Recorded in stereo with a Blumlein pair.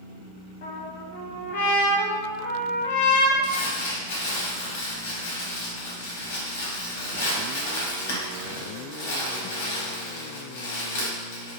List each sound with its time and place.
0.6 s a trumpet: 65° left, 1.2 m
3.4 s crumpling: 55° left, 1.2 m